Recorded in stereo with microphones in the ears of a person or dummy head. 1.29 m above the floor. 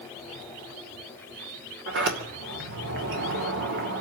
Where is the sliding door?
60° right (ahead or behind), 2.5 m.